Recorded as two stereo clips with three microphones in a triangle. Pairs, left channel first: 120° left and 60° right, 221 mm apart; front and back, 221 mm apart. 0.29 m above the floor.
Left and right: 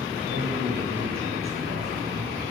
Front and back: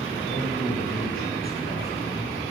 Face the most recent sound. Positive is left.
turn(degrees=-45)